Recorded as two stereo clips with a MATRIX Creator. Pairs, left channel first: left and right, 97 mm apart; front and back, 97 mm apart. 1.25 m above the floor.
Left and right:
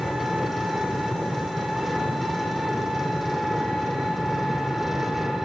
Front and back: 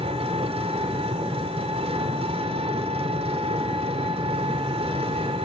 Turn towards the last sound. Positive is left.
turn(degrees=-175)